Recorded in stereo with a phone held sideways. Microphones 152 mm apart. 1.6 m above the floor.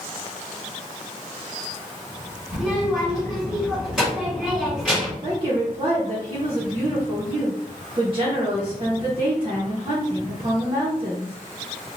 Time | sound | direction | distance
2.5 | a child speaking | centre (ahead or behind) | 1.8 m
5.2 | a woman speaking | 40° right (ahead or behind) | 1.2 m